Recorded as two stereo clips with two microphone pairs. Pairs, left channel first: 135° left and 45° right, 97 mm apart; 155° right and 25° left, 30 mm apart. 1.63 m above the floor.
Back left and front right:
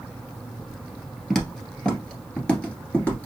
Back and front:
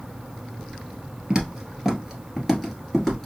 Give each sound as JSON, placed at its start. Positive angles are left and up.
{"t": 1.3, "sound": "footsteps", "azimuth_deg": 50, "distance_m": 1.8}